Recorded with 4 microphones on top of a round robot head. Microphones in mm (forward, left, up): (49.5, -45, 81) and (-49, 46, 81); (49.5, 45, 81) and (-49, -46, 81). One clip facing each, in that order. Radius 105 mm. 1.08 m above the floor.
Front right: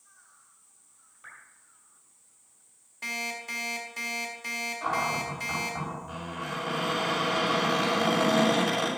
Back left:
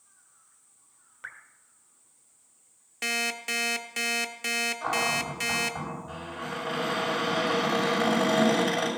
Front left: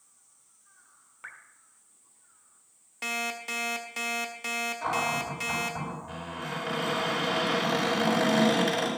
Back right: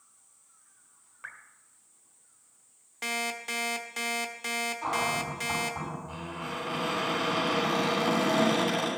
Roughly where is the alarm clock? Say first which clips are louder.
Back left 4 dB, even; behind left.